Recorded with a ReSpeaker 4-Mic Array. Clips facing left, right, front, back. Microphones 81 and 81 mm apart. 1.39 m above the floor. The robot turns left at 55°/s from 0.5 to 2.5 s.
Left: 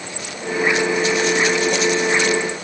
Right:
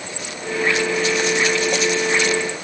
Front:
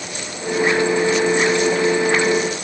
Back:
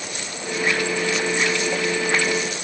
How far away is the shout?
I don't hear a shout.